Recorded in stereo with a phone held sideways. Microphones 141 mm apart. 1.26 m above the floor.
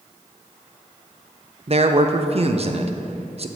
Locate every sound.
1.7 s a man speaking: 45° right (ahead or behind), 0.6 m